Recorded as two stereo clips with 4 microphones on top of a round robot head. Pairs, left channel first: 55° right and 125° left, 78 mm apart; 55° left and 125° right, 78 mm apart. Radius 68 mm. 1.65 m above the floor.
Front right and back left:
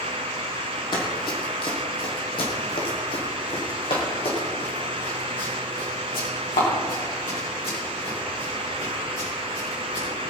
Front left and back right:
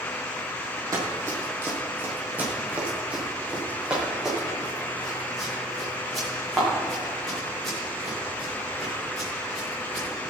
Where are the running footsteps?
75° right, 3 m; by 10.1 s 35° right, 9 m.